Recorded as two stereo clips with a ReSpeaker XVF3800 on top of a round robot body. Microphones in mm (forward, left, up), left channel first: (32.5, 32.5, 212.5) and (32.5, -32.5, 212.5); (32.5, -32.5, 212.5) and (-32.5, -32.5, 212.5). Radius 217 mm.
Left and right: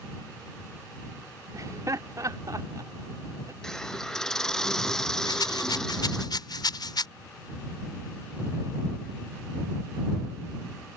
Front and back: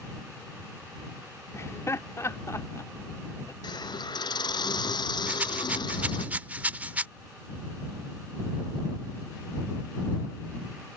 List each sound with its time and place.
1.5 s laughter: 50° right
3.6 s a hiss: 5° left
5.3 s a rattle: 110° left